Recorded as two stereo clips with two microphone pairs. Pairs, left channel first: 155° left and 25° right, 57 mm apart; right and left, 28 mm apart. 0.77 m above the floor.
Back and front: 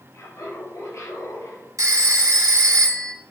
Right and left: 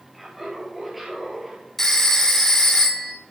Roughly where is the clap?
I don't hear a clap.